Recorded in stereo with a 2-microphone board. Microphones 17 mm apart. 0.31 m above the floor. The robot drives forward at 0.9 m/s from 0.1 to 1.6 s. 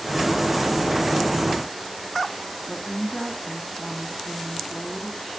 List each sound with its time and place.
2.7 s a woman speaking: 35° left (ahead or behind), 3 m